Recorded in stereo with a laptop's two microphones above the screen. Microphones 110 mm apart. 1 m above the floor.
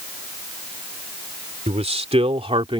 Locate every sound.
1.7 s a man speaking: 75° right (ahead or behind); by 2.8 s 55° right (ahead or behind)